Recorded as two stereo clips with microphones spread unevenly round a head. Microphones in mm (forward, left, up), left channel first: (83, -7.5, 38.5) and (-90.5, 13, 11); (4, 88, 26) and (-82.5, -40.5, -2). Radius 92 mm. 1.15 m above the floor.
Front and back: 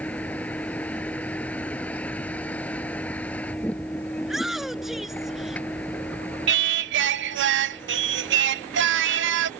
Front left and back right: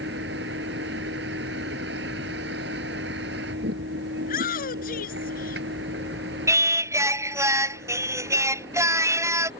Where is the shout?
85° left.